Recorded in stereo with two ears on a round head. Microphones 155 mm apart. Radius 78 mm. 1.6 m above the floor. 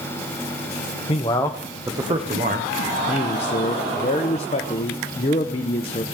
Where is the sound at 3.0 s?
35° left (ahead or behind), 0.8 m.